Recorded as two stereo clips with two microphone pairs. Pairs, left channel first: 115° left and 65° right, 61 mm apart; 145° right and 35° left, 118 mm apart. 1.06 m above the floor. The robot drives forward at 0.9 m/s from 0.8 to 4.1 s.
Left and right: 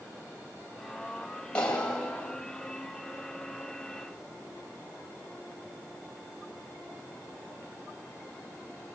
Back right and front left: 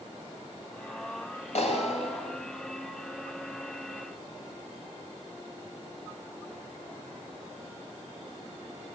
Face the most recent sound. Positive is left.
turn(degrees=-175)